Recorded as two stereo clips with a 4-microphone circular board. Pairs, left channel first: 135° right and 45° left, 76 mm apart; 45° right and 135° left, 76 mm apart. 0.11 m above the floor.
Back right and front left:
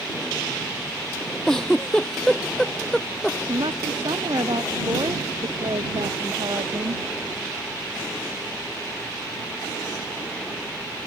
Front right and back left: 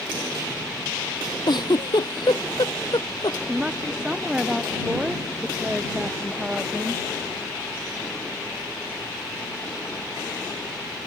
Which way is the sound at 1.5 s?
55° right.